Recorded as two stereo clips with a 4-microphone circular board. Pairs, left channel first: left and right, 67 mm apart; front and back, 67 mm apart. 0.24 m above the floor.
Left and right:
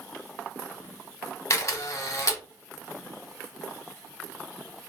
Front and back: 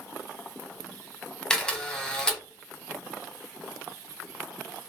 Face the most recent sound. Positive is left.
turn(degrees=75)